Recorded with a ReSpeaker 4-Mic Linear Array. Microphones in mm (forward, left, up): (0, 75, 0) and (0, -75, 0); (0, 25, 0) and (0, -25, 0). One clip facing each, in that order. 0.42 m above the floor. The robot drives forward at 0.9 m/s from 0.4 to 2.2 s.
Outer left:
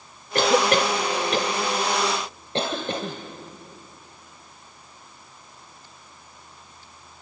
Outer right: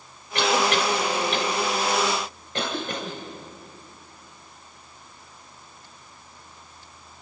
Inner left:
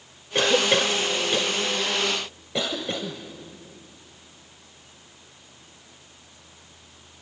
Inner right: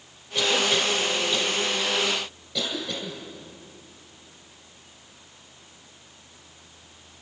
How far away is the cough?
About 1.3 m.